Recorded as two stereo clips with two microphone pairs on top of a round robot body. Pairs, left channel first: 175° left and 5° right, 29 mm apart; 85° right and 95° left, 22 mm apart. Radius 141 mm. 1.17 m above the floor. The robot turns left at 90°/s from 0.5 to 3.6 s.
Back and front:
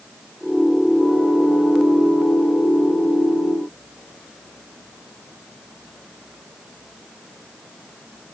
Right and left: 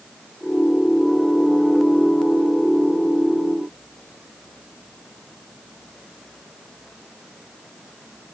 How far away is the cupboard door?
I don't hear a cupboard door.